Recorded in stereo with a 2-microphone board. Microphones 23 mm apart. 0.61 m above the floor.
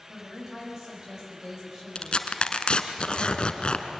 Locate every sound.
0.1 s a woman speaking: 25° right (ahead or behind), 4 m
1.9 s tearing paper: 50° left (ahead or behind), 1.2 m